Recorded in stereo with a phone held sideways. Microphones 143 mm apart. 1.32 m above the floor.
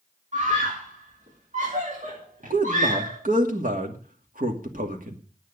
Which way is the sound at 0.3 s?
65° right (ahead or behind).